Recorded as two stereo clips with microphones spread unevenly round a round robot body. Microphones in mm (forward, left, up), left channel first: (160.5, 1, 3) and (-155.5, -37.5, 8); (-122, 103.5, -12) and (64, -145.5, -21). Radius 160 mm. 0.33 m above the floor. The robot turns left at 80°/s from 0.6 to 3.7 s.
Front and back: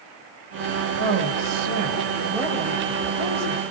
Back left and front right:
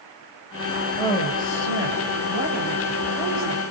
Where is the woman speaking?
155° right, 5.5 m; by 3.6 s 5° right, 5.5 m.